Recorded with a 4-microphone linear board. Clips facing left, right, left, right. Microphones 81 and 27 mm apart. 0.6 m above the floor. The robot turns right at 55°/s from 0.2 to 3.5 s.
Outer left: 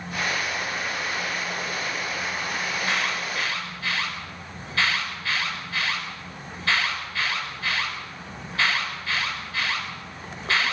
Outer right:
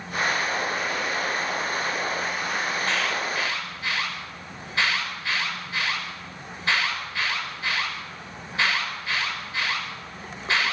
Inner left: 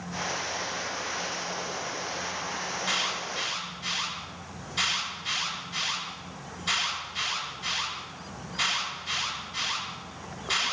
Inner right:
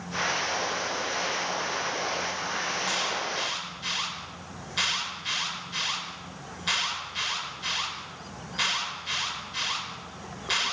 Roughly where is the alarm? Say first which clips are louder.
Outer right 1 dB, inner left 3 dB; centre.